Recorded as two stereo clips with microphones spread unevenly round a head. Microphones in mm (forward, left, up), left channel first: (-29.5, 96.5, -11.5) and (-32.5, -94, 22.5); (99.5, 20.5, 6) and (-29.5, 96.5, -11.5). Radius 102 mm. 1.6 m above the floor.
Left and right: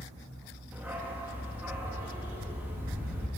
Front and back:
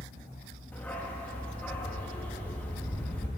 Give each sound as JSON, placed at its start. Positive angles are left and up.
{"t": 0.7, "sound": "a dog barking", "azimuth_deg": -65, "distance_m": 1.0}